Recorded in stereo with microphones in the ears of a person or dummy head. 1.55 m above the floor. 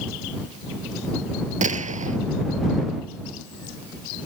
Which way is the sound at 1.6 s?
40° right (ahead or behind).